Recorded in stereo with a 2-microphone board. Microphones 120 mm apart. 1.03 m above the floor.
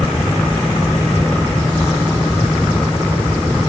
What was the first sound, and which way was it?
Only background noise.